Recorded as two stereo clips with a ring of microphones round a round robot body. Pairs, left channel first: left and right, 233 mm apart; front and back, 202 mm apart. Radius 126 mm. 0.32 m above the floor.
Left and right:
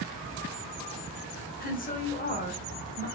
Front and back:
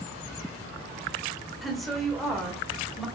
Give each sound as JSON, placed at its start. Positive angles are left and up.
{"t": 1.6, "sound": "a woman speaking", "azimuth_deg": 90, "distance_m": 1.2}